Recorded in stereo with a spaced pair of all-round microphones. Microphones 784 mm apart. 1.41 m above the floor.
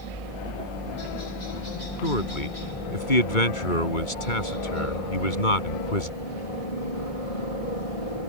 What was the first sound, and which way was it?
A helicopter, 45° left (ahead or behind).